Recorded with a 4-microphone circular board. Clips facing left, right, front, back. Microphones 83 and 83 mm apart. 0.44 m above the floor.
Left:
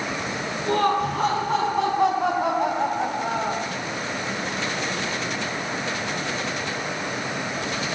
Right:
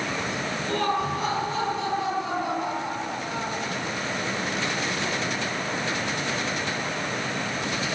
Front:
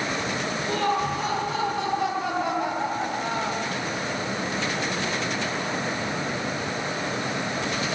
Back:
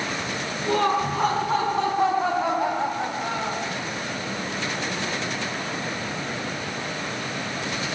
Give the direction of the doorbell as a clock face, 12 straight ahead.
No doorbell in this recording.